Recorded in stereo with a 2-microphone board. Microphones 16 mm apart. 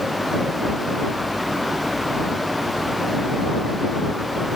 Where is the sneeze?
No sneeze in this recording.